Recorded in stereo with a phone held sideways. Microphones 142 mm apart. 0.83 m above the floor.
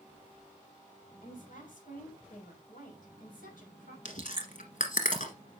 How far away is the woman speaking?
About 5.5 m.